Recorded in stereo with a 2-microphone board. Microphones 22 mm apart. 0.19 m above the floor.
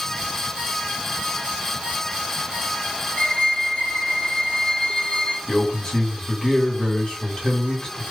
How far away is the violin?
About 1.4 m.